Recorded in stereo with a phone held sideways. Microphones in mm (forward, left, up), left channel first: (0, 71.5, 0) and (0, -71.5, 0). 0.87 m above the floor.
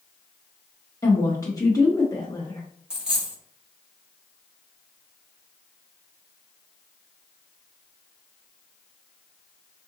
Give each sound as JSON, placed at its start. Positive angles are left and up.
{"t": 1.0, "sound": "a woman speaking", "side_deg": 25, "distance_m": 0.6}
{"t": 2.9, "sound": "a dropped coin", "side_deg": -5, "distance_m": 1.1}